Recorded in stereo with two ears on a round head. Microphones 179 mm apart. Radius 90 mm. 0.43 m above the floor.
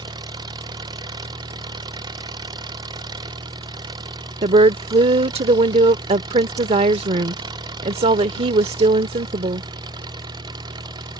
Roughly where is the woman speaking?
Right.